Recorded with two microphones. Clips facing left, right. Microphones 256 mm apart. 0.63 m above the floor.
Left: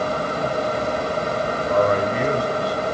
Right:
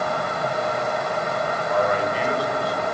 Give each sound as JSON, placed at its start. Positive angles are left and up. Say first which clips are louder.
{"t": 1.7, "sound": "a man speaking", "louder": "left 4 dB", "side_deg": 45, "distance_m": 2.5}